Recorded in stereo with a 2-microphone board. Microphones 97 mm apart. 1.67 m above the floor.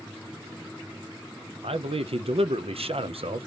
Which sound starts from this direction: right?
A man speaking, at 1.6 s.